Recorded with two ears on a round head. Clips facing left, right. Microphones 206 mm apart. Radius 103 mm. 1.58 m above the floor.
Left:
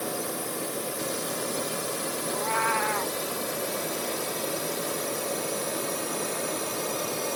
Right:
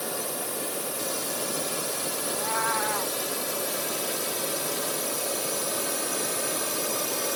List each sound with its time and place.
0.0 s a drone: 10° right (ahead or behind); by 7.3 s 15° right (ahead or behind)
2.3 s a cat meowing: 45° left (ahead or behind)